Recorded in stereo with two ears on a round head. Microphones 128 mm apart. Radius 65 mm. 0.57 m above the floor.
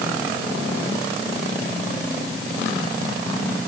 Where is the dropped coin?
No dropped coin in this recording.